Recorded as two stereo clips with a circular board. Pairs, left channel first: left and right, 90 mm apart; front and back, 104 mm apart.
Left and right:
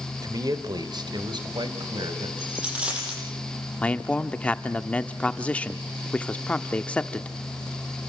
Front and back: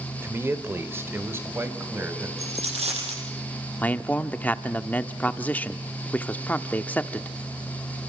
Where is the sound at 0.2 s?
120° right, 1.7 m; by 2.3 s 115° right, 3.5 m.